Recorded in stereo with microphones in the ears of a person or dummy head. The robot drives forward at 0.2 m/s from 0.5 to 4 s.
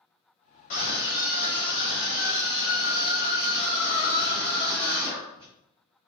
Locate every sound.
0.7 s a scream: 55° left (ahead or behind), 0.9 m; by 5.5 s 30° left (ahead or behind), 1.4 m